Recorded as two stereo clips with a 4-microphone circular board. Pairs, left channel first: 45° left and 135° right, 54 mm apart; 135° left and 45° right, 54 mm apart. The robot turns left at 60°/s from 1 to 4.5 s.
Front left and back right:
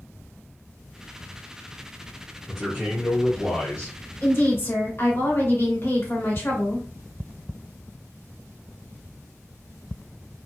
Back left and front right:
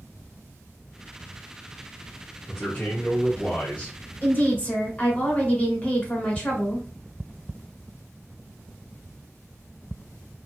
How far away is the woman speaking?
About 1.6 m.